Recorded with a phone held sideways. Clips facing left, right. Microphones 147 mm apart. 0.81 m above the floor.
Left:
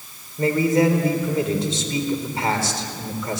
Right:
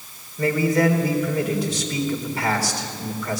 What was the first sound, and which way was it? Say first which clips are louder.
A man speaking: left 1 dB; 25° left (ahead or behind).